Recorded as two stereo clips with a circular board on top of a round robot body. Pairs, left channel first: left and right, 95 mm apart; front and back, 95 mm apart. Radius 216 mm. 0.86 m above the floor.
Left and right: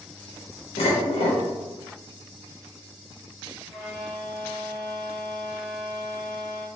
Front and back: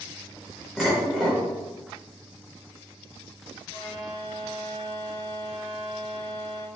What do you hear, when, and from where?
0.8 s dishes clattering: 95° left, 0.8 m
3.7 s a violin: 5° right, 1.4 m